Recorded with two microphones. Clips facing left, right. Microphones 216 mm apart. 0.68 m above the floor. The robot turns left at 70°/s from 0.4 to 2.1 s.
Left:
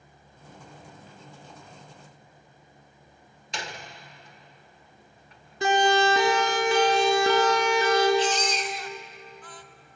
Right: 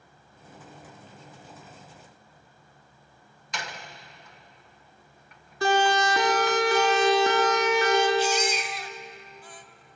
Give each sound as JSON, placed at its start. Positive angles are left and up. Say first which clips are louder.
{"t": 3.5, "sound": "a door slam", "louder": "left 1 dB", "side_deg": 30, "distance_m": 1.8}
{"t": 5.6, "sound": "a siren", "louder": "left 1 dB", "side_deg": 20, "distance_m": 6.5}
{"t": 8.2, "sound": "a baby crying", "louder": "even", "side_deg": -10, "distance_m": 1.3}